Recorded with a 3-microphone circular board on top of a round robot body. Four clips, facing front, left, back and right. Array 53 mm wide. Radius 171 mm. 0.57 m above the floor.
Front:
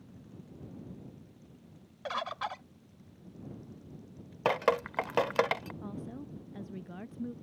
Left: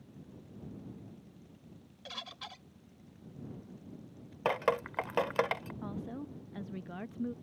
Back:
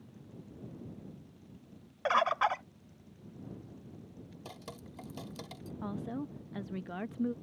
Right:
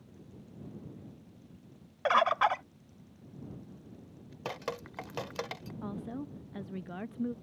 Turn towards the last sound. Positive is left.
turn(degrees=-175)